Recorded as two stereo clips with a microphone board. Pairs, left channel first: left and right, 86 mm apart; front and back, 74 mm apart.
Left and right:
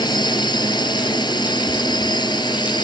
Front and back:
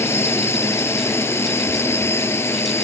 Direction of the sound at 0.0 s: 55° left.